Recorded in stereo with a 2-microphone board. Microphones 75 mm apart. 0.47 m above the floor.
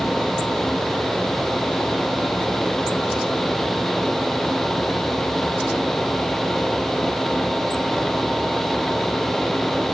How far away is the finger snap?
No finger snap in this recording.